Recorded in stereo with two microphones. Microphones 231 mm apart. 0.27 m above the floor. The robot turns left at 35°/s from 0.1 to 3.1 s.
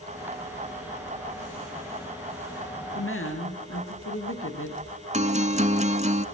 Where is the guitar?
35° right (ahead or behind), 0.9 m.